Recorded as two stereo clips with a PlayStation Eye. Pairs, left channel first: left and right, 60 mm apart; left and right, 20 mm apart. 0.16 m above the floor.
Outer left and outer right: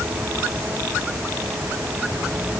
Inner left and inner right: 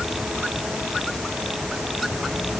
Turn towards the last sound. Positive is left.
No sound to turn to.